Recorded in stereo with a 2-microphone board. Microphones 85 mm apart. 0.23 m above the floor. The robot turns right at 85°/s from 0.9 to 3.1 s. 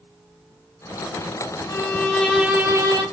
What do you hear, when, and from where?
1.7 s a violin: 130° left, 0.6 m; by 3.0 s 115° right, 0.6 m